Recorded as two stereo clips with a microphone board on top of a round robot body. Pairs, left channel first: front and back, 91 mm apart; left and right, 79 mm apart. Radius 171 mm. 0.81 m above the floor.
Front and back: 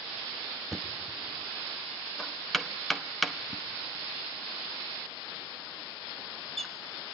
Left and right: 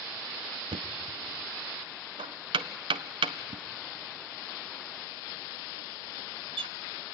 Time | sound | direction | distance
0.7 | knocking | 90° right | 0.6 m